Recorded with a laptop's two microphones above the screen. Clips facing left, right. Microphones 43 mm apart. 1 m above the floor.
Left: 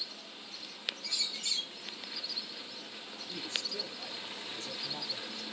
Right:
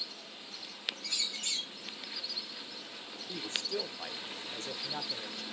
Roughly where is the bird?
Right.